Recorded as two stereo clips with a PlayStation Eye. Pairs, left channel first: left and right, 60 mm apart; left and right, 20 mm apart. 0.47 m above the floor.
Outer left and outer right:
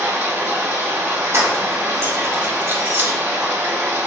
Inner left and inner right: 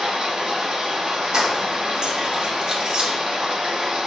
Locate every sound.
0.0 s running water: 50° right (ahead or behind), 1.3 m
1.3 s keys jangling: 45° right (ahead or behind), 1.0 m